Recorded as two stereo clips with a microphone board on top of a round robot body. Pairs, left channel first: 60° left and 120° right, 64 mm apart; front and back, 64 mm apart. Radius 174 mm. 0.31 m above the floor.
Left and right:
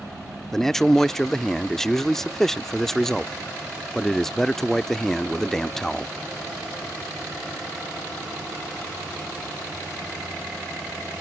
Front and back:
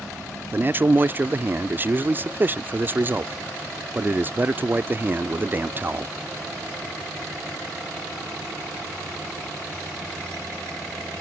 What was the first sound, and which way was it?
A man speaking, 140° left.